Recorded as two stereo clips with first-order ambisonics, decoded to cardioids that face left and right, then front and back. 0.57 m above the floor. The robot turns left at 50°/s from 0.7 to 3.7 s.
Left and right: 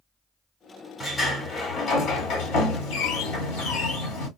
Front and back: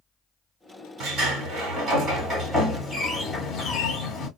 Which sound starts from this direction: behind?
A sliding door, at 1.0 s.